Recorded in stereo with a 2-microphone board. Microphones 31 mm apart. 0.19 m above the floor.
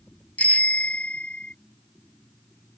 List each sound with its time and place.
0.4 s a bicycle bell: 55° left (ahead or behind); by 1.5 s 45° left (ahead or behind)